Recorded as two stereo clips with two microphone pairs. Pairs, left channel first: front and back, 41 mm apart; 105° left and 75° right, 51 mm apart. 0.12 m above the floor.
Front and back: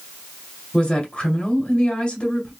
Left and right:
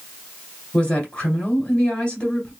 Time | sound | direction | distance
0.7 | a woman speaking | 50° left | 2.0 m